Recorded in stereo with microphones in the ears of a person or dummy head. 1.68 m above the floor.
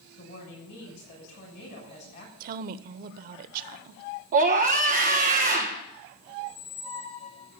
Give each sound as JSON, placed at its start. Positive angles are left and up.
{"t": 0.2, "sound": "a woman speaking", "side_deg": 55, "distance_m": 7.0}
{"t": 2.4, "sound": "a woman speaking", "side_deg": -45, "distance_m": 1.0}
{"t": 4.3, "sound": "a scream", "side_deg": -40, "distance_m": 1.0}
{"t": 6.4, "sound": "a squeak", "side_deg": 40, "distance_m": 1.8}